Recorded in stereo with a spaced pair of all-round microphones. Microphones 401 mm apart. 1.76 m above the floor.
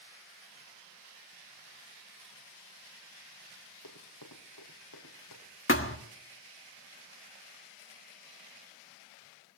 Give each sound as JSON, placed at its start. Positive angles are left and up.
{"t": 3.8, "sound": "running footsteps", "side_deg": 60, "distance_m": 4.0}
{"t": 5.7, "sound": "a thud", "side_deg": 30, "distance_m": 1.4}